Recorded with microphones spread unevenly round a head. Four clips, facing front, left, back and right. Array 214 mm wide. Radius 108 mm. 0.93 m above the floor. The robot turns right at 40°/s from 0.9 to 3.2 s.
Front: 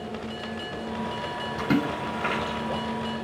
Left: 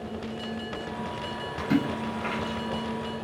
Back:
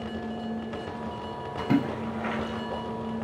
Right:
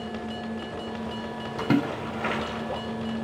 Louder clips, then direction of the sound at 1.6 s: Right 2 dB, even; 90° right.